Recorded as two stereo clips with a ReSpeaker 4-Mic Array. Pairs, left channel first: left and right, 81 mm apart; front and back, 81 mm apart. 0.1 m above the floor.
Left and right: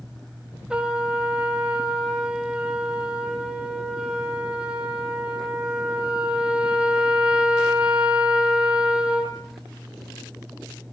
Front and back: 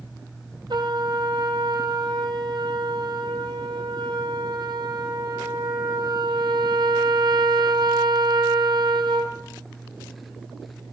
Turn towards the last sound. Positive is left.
turn(degrees=-170)